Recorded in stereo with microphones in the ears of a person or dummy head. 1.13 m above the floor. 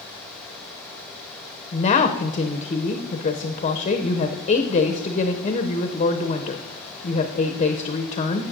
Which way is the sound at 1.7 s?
35° left (ahead or behind).